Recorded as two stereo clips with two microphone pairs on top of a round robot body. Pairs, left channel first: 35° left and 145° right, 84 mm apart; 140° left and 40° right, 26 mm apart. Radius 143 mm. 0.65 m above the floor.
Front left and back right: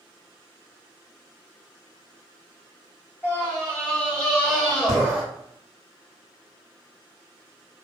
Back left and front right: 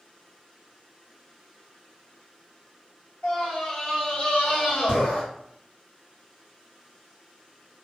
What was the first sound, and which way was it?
A scream, 115° left.